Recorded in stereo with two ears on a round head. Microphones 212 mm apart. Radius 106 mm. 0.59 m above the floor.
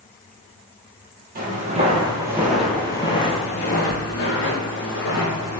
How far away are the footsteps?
About 1.0 m.